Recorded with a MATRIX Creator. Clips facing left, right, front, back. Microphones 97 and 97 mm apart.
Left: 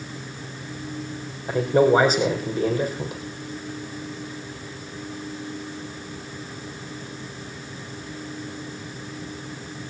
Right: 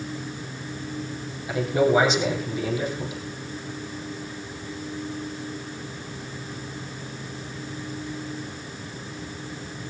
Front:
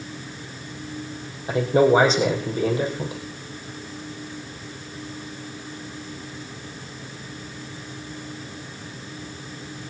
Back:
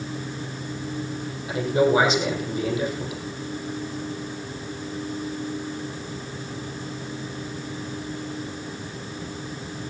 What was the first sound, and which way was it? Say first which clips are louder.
A man speaking: left 3 dB, front 3 dB; 50° left.